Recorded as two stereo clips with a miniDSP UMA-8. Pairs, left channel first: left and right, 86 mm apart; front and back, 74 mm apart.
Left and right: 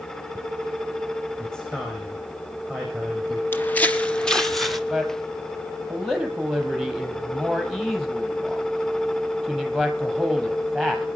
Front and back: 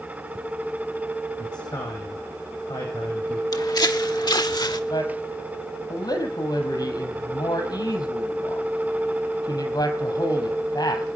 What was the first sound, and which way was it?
A man speaking, 10° left.